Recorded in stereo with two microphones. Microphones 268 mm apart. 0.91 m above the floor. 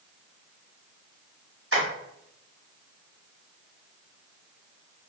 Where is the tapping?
55° right (ahead or behind), 1.8 m.